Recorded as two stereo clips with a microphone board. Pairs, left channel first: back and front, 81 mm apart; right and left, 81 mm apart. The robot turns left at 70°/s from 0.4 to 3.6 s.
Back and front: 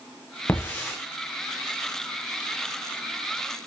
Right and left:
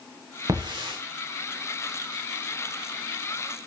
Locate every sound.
0.5 s a hiss: 125° left, 8 m; by 1.0 s 90° left, 8 m